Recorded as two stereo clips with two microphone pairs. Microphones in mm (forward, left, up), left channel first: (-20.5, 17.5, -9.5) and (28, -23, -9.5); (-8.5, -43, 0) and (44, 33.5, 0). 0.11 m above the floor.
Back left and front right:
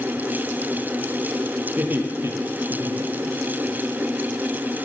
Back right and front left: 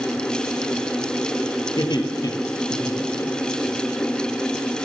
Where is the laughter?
95° right, 2.5 m; by 3.7 s 50° right, 3.5 m.